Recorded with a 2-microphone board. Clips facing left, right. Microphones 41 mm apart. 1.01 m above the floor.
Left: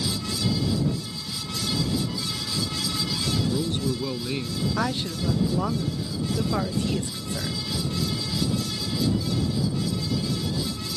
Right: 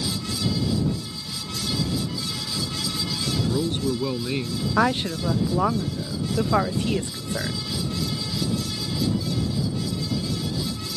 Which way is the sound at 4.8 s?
35° right (ahead or behind).